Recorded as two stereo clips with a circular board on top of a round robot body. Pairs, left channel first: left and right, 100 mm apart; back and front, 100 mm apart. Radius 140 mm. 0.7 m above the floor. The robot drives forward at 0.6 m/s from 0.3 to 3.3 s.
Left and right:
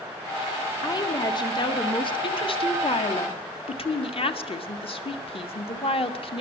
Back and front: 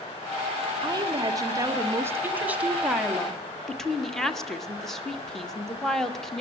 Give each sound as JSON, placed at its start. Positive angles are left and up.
{"t": 0.8, "sound": "a woman speaking", "azimuth_deg": 45, "distance_m": 2.0}